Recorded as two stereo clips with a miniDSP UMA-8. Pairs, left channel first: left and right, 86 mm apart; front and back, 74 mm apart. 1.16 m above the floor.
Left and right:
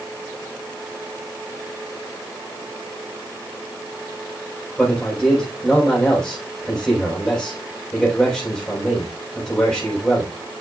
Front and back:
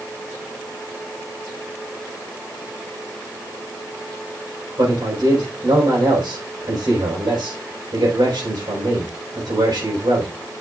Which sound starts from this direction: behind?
A man speaking, at 4.8 s.